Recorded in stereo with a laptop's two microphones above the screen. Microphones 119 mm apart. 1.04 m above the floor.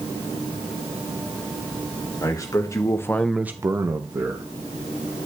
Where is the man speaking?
30° left (ahead or behind), 1.7 m; by 4.4 s 30° right (ahead or behind), 1.7 m.